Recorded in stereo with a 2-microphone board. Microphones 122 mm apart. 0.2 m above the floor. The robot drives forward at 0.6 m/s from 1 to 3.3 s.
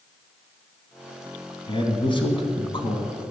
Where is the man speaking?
40° left (ahead or behind), 2 m.